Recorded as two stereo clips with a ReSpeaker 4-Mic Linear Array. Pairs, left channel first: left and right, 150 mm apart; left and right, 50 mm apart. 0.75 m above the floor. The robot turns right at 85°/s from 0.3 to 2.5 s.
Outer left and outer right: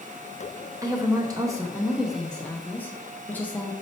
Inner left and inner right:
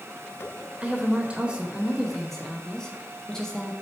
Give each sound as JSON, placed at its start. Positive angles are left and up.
{"t": 0.8, "sound": "a woman speaking", "side_deg": -20, "distance_m": 0.6}